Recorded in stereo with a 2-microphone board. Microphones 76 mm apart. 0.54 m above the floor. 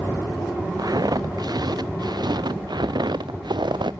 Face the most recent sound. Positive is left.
turn(degrees=-80)